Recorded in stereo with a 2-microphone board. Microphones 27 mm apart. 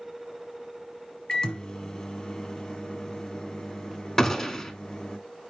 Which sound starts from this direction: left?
A microwave, at 1.3 s.